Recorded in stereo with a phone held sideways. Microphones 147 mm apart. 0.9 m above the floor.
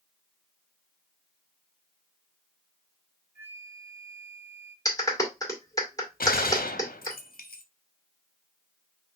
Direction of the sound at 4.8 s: 20° left (ahead or behind).